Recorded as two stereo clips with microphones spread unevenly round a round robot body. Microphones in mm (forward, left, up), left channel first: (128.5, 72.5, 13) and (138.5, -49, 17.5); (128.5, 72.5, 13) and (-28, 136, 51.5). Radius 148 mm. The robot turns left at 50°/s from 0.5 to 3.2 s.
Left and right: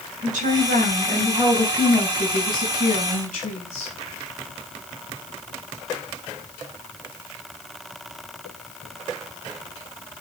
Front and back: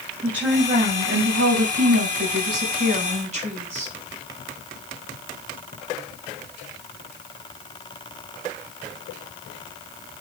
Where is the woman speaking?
115° right, 5.5 m; by 3.9 s 110° left, 5.5 m.